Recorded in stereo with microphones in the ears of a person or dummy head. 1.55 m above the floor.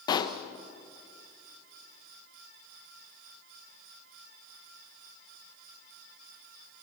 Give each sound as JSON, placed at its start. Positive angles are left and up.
{"t": 0.1, "sound": "a pop", "side_deg": 25, "distance_m": 0.9}